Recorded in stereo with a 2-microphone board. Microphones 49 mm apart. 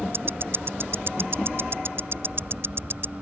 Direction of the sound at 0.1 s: 55° right (ahead or behind).